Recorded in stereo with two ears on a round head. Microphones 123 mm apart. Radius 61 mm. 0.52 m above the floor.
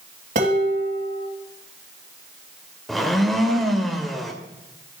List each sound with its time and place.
0.3 s dishes clattering: 55° right (ahead or behind), 3 m
2.9 s a blender: centre (ahead or behind), 1.9 m